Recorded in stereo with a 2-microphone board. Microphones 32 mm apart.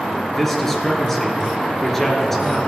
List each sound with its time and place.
0.3 s a man speaking: 10° left (ahead or behind), 2.5 m